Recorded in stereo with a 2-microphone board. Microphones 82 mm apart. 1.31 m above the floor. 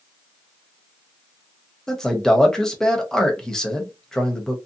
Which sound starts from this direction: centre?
A man speaking, at 1.9 s.